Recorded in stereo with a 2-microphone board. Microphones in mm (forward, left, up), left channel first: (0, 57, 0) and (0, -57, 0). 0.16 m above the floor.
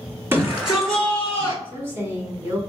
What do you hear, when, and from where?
0.3 s a shout: 20° right (ahead or behind), 1.7 m; by 1.6 s 30° left (ahead or behind), 1.8 m
1.6 s a woman speaking: 20° right (ahead or behind), 1.2 m